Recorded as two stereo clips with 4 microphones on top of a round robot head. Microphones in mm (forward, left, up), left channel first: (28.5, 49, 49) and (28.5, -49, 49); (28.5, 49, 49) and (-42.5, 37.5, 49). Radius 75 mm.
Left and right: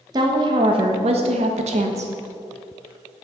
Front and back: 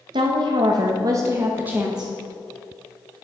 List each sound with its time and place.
0.1 s a woman speaking: 145° right, 1.2 m; by 2.1 s 85° right, 1.0 m